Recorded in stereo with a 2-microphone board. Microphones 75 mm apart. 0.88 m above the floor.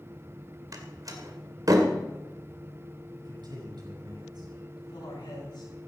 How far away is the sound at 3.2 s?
About 7.5 m.